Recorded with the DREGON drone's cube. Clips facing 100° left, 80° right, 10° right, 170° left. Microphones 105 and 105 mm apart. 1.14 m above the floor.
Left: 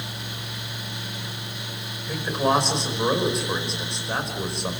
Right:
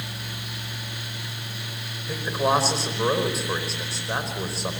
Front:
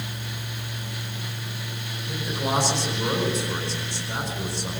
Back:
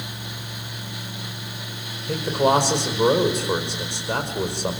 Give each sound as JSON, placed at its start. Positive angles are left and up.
{"t": 2.1, "sound": "a man speaking", "azimuth_deg": -165, "distance_m": 5.0}